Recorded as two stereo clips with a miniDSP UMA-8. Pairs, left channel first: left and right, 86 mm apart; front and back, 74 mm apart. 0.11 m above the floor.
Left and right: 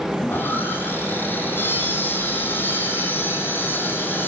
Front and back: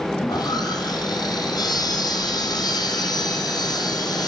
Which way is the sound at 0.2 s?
25° left.